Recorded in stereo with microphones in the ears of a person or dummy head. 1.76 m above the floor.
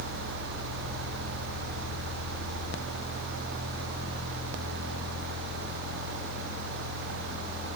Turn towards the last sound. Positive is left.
No sound to turn to.